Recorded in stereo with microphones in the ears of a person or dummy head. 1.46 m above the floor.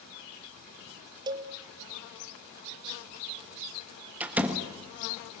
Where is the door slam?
5° right (ahead or behind), 1.5 m.